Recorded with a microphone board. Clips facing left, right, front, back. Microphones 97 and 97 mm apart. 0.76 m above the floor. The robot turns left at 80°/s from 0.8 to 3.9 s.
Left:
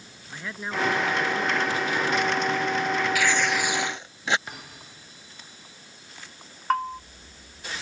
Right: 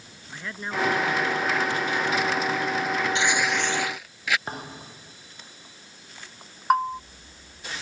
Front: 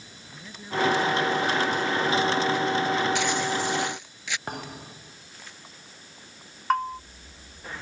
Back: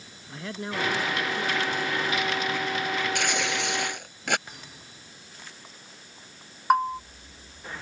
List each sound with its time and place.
0.3 s a man speaking: straight behind; by 2.8 s 20° left
3.1 s tearing paper: 150° right; by 4.4 s 150° left
4.5 s a thud: 35° right
6.7 s a bell: 130° right